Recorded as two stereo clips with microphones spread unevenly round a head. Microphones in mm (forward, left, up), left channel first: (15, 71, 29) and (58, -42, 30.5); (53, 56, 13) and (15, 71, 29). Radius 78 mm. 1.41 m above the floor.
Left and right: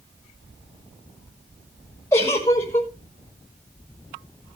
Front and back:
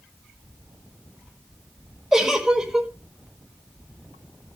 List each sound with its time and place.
2.1 s a giggle: 175° left, 1.4 m